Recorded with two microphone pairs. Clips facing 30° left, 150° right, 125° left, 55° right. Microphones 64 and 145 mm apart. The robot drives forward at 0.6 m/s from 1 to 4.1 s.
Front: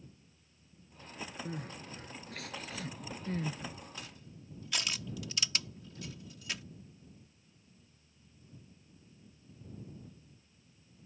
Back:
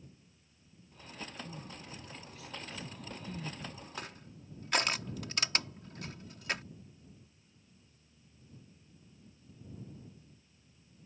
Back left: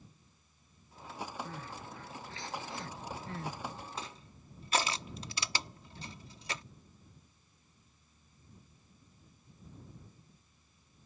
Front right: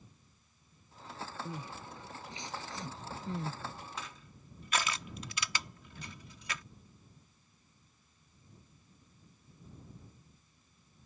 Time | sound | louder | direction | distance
1.4 | crying | front 4 dB, front right 1 dB | 15° left | ?
4.0 | crushing | back 4 dB, back left 2 dB | straight behind | ?